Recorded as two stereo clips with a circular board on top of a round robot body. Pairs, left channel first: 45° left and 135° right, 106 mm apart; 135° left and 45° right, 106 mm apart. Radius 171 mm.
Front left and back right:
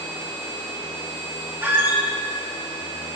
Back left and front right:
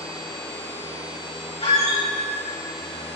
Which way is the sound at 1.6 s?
155° left.